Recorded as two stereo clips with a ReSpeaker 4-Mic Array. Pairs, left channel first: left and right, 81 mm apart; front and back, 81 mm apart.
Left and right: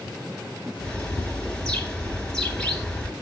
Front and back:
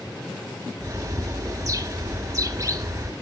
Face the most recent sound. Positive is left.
turn(degrees=165)